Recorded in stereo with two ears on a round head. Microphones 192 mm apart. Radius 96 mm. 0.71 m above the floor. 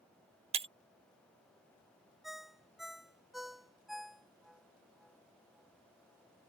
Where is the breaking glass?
25° right (ahead or behind).